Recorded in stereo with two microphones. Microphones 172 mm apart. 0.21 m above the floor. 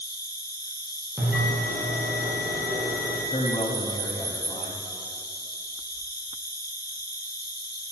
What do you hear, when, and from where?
0.0 s an insect: 70° left (ahead or behind), 1.2 m
1.2 s a bell: 5° right (ahead or behind), 3.5 m
3.3 s a man speaking: 35° left (ahead or behind), 1.2 m